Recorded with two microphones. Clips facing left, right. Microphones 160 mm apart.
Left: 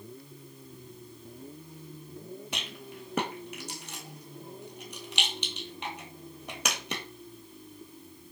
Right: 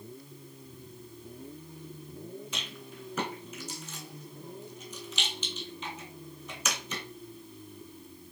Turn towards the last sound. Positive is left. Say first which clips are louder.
# left 2 dB
turn(degrees=70)  # may be behind; listen again after turning